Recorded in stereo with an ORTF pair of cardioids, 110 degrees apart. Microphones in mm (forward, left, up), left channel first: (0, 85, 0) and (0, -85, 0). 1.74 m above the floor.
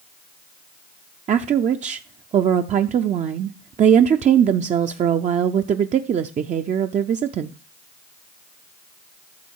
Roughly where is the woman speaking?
Ahead right.